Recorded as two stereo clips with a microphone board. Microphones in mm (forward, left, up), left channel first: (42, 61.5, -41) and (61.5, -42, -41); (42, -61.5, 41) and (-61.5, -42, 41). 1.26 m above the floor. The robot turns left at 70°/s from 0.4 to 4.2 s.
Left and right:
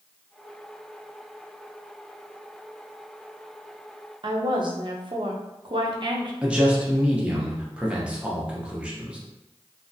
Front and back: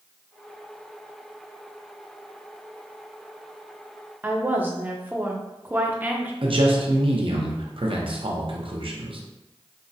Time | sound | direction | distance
4.2 | a woman speaking | 115° right | 0.6 m
6.4 | a man speaking | 160° right | 0.7 m